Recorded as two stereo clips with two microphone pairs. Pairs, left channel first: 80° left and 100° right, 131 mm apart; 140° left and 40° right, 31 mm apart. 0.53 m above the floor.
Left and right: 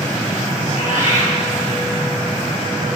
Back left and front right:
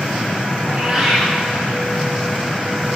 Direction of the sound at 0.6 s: 90° right.